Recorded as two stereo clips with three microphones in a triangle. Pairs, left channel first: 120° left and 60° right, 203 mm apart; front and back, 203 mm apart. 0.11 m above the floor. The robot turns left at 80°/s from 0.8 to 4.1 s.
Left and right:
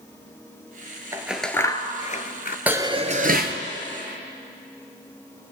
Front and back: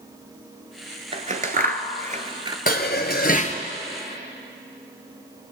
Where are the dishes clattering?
20° left, 1.2 m; by 3.6 s 55° right, 1.2 m.